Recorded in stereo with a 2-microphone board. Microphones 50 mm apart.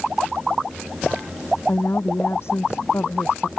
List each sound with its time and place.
1.7 s a woman speaking: 65° left (ahead or behind)